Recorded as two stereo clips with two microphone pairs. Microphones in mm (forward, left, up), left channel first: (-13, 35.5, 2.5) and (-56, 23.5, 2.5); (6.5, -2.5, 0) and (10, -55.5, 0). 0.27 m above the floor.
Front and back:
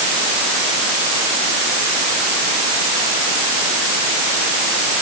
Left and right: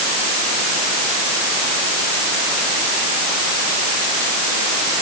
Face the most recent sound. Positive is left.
No sound to turn to.